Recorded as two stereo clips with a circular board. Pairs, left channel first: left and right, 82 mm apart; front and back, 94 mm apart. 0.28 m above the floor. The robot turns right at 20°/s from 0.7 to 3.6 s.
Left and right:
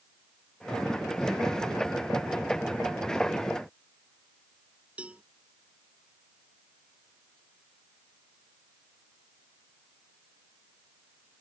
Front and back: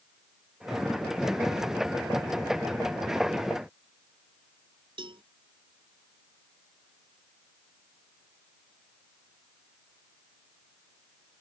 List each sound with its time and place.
5.0 s a cowbell: 165° right